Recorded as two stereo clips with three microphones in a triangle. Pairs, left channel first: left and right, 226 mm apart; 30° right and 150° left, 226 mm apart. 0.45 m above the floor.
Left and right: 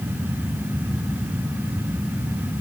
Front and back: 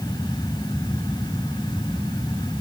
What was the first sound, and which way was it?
Only background noise.